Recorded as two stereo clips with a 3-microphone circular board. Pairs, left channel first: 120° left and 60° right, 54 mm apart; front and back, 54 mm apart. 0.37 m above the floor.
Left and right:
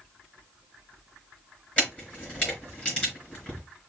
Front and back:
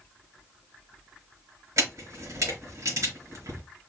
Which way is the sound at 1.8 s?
170° right.